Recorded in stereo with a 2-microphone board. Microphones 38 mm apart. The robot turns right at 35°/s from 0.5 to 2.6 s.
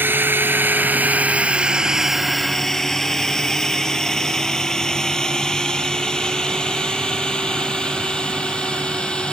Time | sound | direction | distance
0.0 | a drone | 70° right (ahead or behind) | ?